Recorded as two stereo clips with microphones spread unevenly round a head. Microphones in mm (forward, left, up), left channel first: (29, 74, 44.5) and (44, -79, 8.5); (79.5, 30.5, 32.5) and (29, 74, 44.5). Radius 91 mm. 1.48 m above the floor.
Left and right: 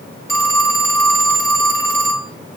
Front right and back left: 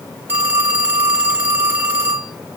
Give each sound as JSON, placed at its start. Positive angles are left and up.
{"t": 0.3, "sound": "a phone ringing", "azimuth_deg": 135, "distance_m": 0.8}